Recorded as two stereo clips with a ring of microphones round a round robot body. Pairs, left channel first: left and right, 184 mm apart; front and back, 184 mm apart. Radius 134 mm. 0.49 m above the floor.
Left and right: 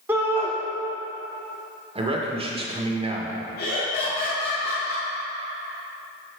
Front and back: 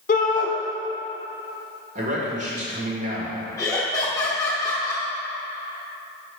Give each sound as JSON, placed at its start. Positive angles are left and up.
{"t": 0.1, "sound": "a shout", "azimuth_deg": -15, "distance_m": 1.1}
{"t": 1.9, "sound": "a man speaking", "azimuth_deg": -140, "distance_m": 1.7}
{"t": 3.6, "sound": "laughter", "azimuth_deg": 70, "distance_m": 1.1}